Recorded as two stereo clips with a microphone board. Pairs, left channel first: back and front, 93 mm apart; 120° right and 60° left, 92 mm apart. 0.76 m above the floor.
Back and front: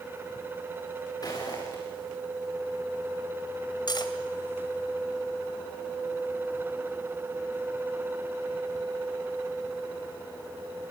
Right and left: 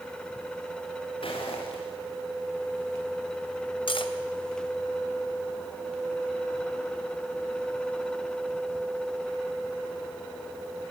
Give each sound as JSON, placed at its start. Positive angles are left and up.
{"t": 1.2, "sound": "footsteps", "azimuth_deg": -135, "distance_m": 6.0}
{"t": 3.9, "sound": "cutlery clinking", "azimuth_deg": -140, "distance_m": 2.5}